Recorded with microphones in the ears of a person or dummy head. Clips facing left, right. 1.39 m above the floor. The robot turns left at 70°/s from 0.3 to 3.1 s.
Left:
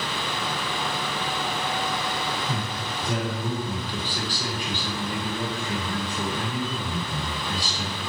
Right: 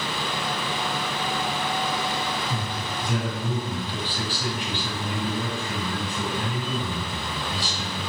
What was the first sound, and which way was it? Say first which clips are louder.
A man speaking: even; 80° left.